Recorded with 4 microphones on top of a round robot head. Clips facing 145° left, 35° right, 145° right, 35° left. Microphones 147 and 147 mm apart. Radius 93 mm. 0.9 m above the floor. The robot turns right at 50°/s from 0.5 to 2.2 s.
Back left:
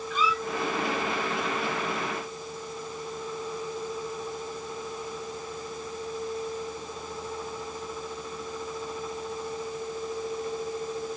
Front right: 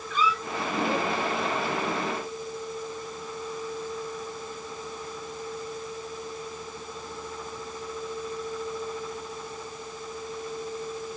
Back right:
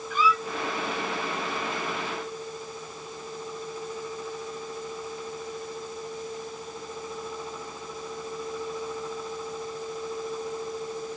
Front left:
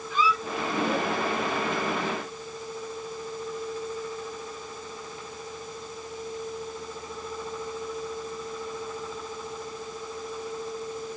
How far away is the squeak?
About 1.4 m.